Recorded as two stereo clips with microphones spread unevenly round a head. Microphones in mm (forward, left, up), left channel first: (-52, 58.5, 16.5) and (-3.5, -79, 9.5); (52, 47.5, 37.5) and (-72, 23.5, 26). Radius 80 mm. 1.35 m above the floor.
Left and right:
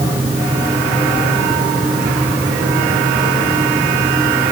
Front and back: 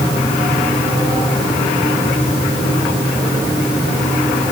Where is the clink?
No clink in this recording.